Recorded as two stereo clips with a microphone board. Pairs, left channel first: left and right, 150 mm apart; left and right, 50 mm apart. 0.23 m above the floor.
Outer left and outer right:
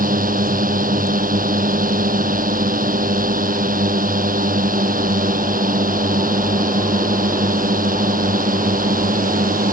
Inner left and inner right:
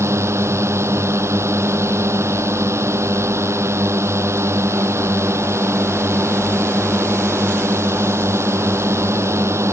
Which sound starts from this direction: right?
A drone, at 0.0 s.